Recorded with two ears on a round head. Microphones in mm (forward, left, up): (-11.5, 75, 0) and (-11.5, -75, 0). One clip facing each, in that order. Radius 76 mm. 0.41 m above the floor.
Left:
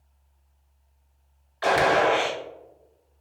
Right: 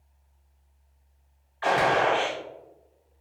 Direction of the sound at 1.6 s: 45° left (ahead or behind).